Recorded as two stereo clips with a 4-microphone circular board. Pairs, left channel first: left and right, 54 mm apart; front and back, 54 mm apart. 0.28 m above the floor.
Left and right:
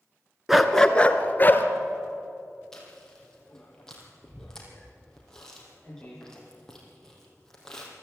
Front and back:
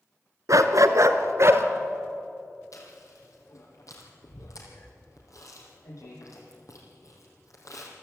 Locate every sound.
0.5 s a dog barking: 175° right, 1.1 m; by 1.6 s 140° left, 1.8 m
2.7 s chewing: 10° left, 4.5 m